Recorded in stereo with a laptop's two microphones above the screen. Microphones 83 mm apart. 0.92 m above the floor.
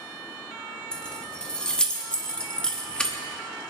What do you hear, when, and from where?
0.9 s keys jangling: 10° left (ahead or behind), 1.1 m